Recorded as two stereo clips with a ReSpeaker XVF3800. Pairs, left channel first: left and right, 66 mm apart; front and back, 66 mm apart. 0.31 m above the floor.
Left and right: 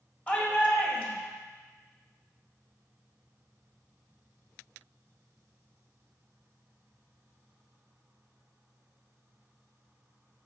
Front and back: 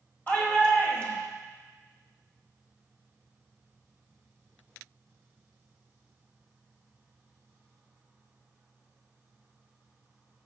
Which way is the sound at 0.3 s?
40° left.